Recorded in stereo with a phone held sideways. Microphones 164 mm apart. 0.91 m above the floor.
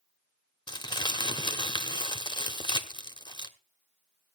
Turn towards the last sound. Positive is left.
turn(degrees=30)  # may be behind; listen again after turning